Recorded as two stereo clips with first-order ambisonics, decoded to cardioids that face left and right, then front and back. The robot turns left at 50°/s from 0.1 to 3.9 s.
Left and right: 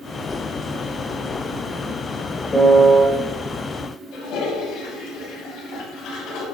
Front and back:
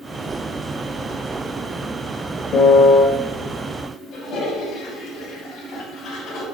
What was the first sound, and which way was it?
A piano, 15° left.